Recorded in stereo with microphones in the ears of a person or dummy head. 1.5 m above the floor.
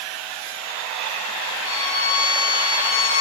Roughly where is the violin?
Left.